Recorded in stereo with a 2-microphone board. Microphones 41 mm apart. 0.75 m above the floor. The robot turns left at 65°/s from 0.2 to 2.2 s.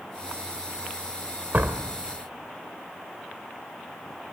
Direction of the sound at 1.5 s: 50° right (ahead or behind).